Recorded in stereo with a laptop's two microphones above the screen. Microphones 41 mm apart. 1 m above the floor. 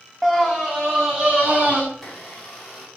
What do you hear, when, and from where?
0.2 s a scream: 5° left (ahead or behind), 0.8 m; by 1.8 s 15° right (ahead or behind), 2.5 m
1.9 s a blender: 10° left (ahead or behind), 4 m